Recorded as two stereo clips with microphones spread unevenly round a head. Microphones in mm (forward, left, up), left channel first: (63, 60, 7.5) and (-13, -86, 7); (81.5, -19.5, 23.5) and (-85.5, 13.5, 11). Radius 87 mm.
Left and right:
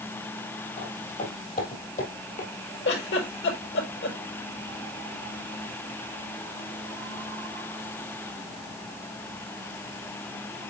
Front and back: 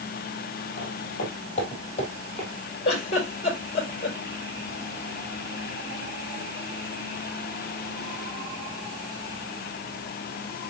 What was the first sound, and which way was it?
Footsteps, 30° left.